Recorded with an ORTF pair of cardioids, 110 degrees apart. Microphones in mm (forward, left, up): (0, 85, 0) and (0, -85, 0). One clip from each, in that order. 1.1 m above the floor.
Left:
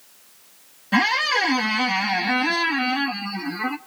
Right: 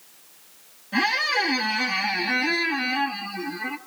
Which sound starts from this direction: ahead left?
A squeak, at 0.9 s.